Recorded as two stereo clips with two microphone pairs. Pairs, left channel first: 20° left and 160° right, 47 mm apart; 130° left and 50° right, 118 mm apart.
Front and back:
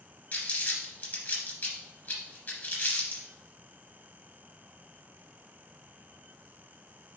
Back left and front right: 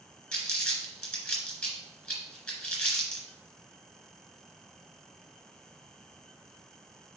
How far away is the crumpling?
About 2.5 m.